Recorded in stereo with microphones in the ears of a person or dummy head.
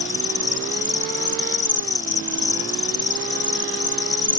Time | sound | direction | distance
0.0 | an insect | 20° left (ahead or behind) | ?